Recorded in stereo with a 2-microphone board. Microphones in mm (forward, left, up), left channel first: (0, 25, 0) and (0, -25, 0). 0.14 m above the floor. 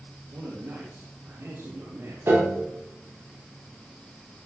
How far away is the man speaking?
About 4.5 m.